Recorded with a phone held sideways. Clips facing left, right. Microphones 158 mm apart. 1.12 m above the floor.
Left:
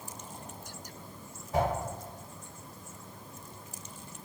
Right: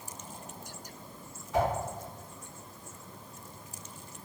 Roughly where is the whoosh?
Left.